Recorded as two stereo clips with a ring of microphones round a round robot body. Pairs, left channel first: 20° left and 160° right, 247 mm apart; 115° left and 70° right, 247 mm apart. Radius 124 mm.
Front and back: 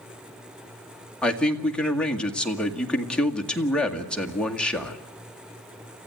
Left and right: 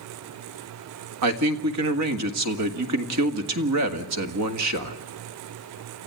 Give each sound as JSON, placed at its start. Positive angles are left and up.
{"t": 1.2, "sound": "a man speaking", "azimuth_deg": -65, "distance_m": 2.0}